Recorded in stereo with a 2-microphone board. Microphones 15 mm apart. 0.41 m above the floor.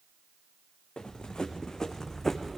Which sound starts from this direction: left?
Running footsteps, at 1.0 s.